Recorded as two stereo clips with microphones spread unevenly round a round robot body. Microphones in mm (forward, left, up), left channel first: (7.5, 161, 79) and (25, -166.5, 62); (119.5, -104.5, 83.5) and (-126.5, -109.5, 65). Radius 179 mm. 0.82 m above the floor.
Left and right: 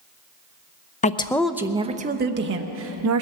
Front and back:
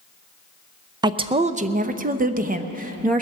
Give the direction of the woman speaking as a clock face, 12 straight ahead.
7 o'clock.